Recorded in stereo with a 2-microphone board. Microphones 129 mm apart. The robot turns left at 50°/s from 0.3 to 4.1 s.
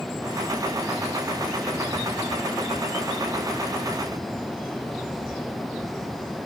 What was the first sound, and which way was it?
Only background noise.